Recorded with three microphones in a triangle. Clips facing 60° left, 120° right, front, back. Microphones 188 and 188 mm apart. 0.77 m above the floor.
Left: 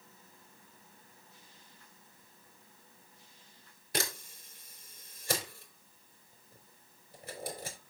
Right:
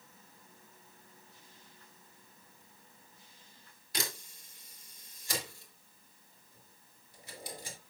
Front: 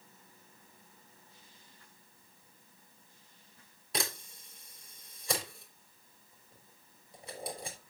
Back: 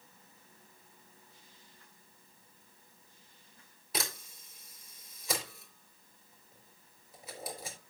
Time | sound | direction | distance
3.9 | a camera shutter | 95° left | 3.5 m